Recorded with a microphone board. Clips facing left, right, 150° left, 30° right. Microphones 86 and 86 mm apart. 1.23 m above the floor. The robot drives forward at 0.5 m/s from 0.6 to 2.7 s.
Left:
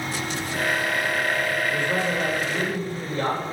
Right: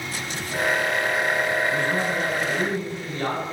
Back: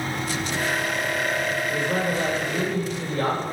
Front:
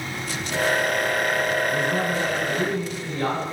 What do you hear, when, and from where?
1.7 s a man speaking: 125° left, 4.5 m; by 3.4 s 130° left, 5 m